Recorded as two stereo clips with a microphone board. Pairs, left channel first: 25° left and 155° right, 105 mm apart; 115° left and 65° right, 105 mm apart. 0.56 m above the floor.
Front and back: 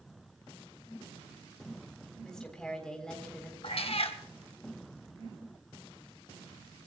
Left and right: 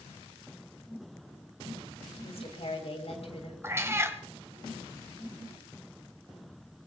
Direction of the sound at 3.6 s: Straight ahead.